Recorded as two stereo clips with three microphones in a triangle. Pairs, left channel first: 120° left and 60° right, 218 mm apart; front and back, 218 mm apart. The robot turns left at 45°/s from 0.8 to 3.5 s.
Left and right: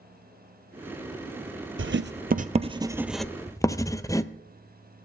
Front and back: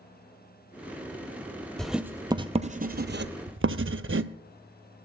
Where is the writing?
85° right, 0.6 m; by 4.3 s 165° right, 0.6 m.